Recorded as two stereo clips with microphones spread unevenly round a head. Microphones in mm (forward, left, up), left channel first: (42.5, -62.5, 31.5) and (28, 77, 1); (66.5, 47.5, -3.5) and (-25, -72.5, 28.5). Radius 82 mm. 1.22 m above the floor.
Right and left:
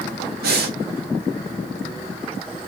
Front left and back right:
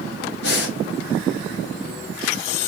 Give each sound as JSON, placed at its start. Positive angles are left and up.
{"t": 0.4, "sound": "breathing", "azimuth_deg": 85, "distance_m": 1.1}